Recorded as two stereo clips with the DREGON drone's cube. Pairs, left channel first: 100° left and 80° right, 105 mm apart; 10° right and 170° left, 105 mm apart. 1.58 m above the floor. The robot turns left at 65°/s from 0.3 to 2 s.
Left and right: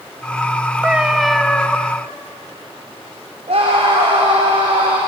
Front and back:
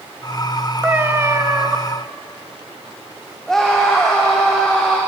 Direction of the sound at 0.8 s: 140° right.